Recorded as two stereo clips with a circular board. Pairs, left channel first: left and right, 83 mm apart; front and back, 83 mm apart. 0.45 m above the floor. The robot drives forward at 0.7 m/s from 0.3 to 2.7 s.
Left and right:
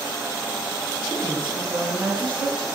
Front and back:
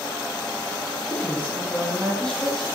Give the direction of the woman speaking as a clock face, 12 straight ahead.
2 o'clock.